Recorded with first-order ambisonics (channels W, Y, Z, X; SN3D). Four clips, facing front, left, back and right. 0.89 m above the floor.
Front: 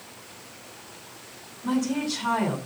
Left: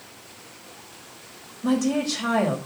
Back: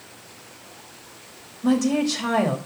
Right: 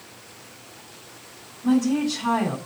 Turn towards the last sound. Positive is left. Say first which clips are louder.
# right 2 dB, back 6 dB
turn(degrees=145)